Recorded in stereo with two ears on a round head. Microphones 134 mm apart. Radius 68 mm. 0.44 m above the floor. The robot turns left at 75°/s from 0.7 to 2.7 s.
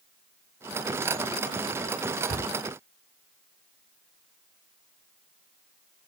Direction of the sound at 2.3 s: 10° right (ahead or behind).